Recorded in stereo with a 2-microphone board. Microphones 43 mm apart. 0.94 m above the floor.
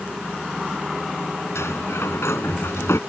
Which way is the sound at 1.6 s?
80° left.